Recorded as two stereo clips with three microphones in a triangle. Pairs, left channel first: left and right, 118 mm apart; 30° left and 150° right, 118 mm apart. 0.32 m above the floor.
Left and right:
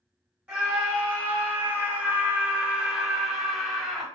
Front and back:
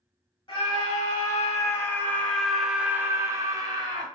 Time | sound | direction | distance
0.5 | a scream | 15° right | 1.7 m